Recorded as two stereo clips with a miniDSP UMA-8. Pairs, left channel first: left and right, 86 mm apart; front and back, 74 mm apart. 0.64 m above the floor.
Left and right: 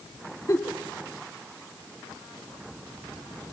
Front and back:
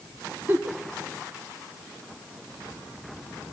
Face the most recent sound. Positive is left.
turn(degrees=130)